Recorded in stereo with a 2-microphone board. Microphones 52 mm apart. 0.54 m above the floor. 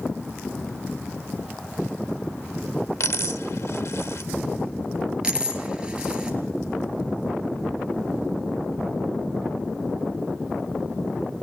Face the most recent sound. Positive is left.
turn(degrees=-20)  # may be behind; listen again after turning